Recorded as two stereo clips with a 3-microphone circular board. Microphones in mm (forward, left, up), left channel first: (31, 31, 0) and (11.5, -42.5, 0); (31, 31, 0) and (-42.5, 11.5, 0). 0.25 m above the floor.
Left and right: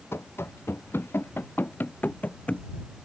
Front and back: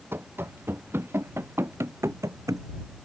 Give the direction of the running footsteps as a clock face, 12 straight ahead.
8 o'clock.